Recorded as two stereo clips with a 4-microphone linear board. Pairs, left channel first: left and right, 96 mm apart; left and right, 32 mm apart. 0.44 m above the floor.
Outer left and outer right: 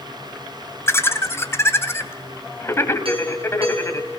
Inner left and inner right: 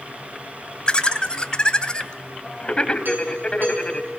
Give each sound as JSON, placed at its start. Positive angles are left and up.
{"t": 0.9, "sound": "laughter", "side_deg": 30, "distance_m": 2.5}
{"t": 3.0, "sound": "a doorbell", "side_deg": -75, "distance_m": 6.5}